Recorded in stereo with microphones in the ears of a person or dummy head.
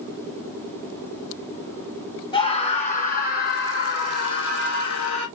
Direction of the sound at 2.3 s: 25° left (ahead or behind).